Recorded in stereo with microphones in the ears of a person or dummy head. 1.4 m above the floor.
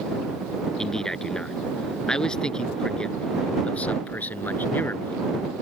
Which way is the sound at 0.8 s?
Centre (ahead or behind).